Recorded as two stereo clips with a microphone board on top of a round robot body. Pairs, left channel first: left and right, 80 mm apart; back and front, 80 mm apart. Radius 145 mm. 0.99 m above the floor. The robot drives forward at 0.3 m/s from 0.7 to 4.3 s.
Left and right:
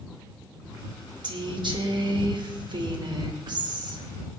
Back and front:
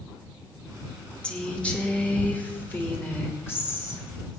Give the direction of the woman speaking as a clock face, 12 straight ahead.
3 o'clock.